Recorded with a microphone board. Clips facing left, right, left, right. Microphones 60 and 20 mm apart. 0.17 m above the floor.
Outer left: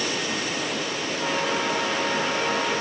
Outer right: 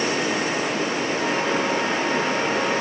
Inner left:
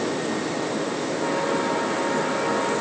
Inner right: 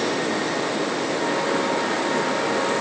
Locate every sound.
Only background noise.